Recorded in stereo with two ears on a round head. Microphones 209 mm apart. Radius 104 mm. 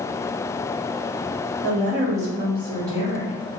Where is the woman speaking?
40° right (ahead or behind), 1.3 m; by 3.6 s 5° right (ahead or behind), 1.6 m.